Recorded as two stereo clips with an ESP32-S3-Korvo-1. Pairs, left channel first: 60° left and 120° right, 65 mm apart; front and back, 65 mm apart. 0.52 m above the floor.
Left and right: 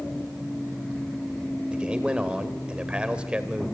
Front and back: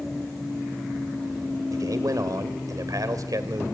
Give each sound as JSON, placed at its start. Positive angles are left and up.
{"t": 1.7, "sound": "a man speaking", "azimuth_deg": 170, "distance_m": 2.5}